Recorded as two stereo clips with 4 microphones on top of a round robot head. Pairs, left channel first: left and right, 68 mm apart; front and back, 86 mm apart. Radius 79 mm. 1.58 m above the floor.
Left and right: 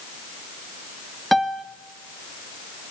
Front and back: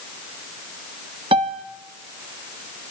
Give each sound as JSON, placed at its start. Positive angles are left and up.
{"t": 1.3, "sound": "a piano", "azimuth_deg": 180, "distance_m": 1.2}